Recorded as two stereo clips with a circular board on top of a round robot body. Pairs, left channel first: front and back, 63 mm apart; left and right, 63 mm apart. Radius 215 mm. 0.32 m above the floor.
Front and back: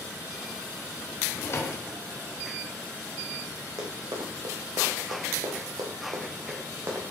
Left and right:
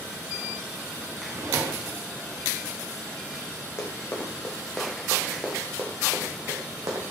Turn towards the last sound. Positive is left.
turn(degrees=-120)